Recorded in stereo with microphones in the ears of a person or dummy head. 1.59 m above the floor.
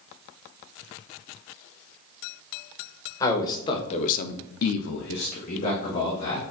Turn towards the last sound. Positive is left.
turn(degrees=30)  # may be behind; listen again after turning